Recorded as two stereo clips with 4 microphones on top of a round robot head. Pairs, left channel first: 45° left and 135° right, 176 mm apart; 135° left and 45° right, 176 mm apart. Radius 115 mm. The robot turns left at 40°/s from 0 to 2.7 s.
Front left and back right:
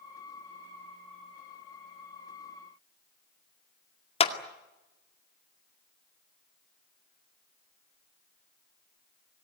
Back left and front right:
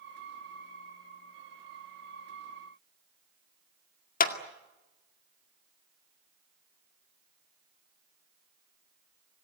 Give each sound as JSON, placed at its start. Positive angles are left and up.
{"t": 4.2, "sound": "a clap", "azimuth_deg": 100, "distance_m": 2.0}